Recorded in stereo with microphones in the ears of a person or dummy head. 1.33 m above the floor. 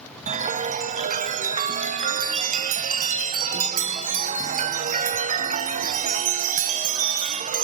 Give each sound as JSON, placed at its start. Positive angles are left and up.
{"t": 0.3, "sound": "a chime", "side_deg": -40, "distance_m": 0.6}